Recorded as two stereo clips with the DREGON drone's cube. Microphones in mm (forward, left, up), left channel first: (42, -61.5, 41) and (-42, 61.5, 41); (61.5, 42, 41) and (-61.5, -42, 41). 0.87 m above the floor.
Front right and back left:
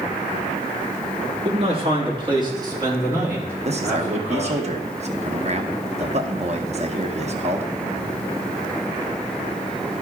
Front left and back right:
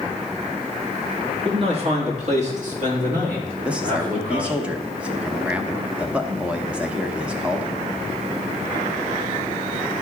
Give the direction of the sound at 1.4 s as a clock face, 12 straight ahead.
6 o'clock.